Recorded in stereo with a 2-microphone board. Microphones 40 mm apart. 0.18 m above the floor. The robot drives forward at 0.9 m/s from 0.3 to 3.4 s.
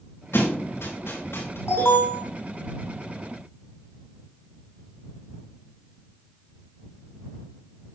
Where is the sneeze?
I don't hear a sneeze.